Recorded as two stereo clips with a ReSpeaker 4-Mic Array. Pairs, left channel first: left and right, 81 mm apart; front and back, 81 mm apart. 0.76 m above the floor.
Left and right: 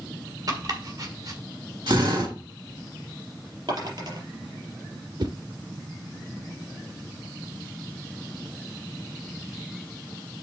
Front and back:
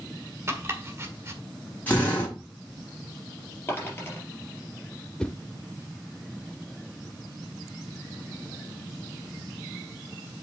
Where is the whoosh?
80° right, 0.7 m.